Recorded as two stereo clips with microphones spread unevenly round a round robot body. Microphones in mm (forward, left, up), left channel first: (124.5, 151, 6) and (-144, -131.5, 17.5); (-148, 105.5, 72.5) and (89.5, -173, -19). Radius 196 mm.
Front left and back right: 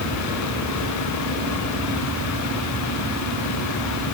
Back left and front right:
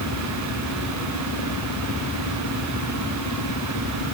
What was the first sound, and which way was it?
Only background noise.